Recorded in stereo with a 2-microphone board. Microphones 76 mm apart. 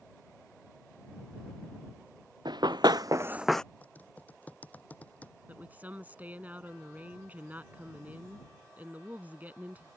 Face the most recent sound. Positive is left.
turn(degrees=-25)  # may be behind; listen again after turning